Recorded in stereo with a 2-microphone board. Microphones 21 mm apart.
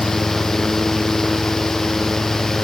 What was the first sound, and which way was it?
Only background noise.